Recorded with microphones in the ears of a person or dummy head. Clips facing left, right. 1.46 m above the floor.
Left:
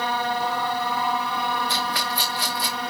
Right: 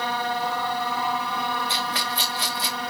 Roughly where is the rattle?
Right.